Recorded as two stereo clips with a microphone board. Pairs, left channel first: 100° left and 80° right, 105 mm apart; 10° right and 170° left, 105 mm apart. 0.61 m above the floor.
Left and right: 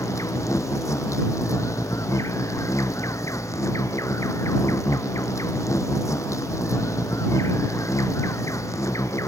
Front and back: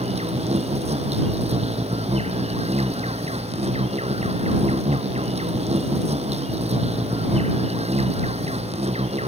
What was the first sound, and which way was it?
An insect, 160° left.